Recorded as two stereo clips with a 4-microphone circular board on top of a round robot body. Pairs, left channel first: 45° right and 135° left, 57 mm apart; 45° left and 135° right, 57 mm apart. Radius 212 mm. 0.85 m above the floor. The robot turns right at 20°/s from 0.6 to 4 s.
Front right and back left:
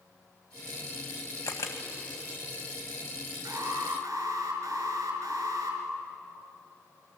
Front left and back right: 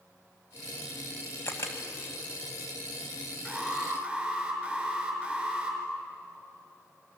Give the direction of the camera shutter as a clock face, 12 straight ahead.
12 o'clock.